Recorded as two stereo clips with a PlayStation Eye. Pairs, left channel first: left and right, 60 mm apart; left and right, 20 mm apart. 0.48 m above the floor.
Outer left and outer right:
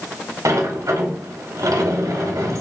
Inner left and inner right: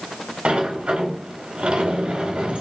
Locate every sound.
0.5 s a sliding door: 80° right, 1.0 m